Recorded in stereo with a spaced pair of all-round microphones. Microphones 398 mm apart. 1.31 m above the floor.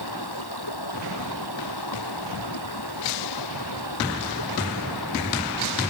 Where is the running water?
70° left (ahead or behind).